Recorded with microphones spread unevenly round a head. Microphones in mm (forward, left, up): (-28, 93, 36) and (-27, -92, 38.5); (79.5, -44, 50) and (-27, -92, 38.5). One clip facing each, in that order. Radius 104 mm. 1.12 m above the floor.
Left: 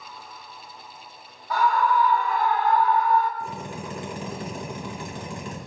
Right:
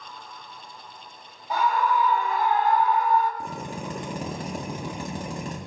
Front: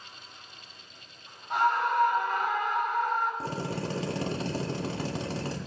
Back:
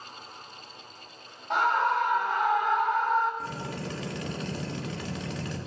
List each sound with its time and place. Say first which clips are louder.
1.5 s a scream: left 2 dB, back 1 dB; 160° right, 2.5 m
3.4 s a drill: even, front 3 dB; 35° right, 2 m